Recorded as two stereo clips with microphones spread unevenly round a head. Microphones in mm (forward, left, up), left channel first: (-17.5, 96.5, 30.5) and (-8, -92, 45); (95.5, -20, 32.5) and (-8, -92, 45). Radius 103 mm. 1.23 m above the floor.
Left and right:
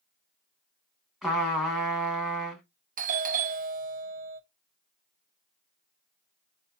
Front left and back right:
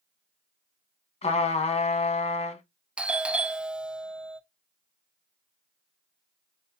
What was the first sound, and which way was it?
A trumpet, straight ahead.